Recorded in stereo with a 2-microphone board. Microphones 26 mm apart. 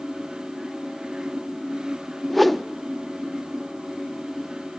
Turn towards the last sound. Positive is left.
turn(degrees=5)  # may be behind; listen again after turning